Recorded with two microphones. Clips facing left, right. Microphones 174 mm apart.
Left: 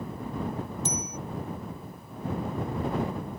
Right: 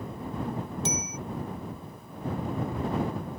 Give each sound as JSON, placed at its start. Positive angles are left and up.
{"t": 0.8, "sound": "a bicycle bell", "side_deg": -85}